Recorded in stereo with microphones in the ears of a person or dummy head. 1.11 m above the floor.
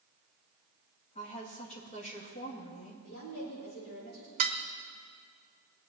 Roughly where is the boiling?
I don't hear boiling.